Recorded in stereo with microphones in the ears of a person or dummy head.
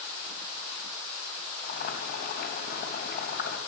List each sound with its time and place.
1.6 s boiling: 55° left (ahead or behind), 3.5 m